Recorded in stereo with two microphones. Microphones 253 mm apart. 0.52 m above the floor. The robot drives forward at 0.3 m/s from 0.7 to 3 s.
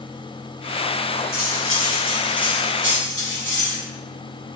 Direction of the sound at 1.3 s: 60° right (ahead or behind).